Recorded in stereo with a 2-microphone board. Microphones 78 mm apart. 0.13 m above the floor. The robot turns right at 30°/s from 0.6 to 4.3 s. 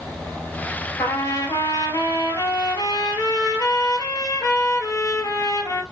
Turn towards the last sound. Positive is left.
turn(degrees=135)